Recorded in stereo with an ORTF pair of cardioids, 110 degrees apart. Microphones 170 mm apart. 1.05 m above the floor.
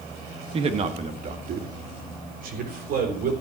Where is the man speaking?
35° right, 1.4 m; by 3.3 s 60° right, 3.5 m.